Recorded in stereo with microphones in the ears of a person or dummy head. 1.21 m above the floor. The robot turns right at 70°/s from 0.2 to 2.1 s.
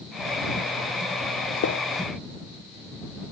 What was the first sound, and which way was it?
A gunshot, 60° left (ahead or behind).